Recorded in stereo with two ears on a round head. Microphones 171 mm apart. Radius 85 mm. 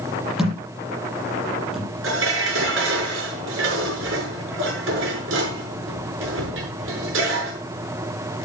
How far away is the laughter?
No laughter in this recording.